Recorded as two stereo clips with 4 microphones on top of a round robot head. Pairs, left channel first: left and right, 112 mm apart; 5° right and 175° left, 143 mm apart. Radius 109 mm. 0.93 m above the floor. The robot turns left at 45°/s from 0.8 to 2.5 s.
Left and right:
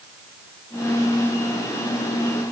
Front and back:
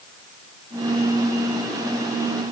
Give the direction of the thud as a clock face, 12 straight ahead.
I don't hear a thud.